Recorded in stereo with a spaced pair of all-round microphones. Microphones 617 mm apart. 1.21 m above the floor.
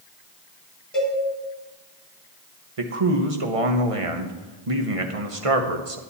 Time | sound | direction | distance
0.9 | a cowbell | centre (ahead or behind) | 3.5 m
2.8 | a man speaking | 60° right (ahead or behind) | 1.2 m